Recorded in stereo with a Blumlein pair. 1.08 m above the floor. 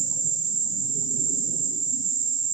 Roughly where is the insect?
Ahead right.